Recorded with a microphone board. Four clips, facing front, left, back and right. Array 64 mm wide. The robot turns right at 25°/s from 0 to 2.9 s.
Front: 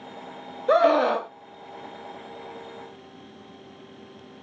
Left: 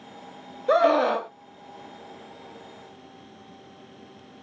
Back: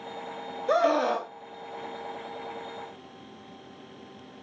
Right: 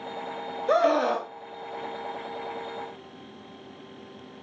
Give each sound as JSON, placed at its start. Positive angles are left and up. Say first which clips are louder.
{"t": 0.7, "sound": "a scream", "louder": "left 2 dB, front 5 dB", "azimuth_deg": 25, "distance_m": 0.7}